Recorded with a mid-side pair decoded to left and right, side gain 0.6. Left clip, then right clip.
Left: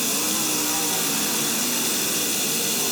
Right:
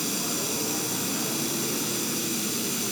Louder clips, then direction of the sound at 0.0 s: Left 5 dB; 70° left.